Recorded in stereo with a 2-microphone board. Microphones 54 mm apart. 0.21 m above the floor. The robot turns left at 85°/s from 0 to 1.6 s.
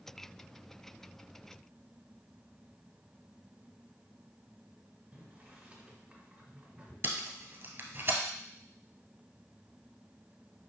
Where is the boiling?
30° right (ahead or behind), 1.8 m.